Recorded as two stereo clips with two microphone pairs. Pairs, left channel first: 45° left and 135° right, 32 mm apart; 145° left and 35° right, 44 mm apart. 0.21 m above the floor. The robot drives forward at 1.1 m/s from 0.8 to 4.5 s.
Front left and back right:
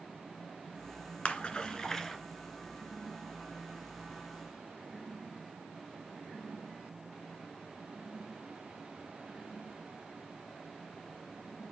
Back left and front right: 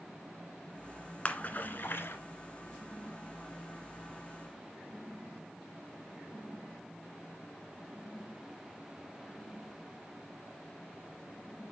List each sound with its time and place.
1.2 s a splash: 85° left, 1.5 m; by 2.2 s 125° left, 1.7 m